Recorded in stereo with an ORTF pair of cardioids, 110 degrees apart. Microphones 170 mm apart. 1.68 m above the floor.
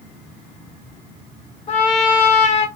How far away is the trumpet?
About 1.6 m.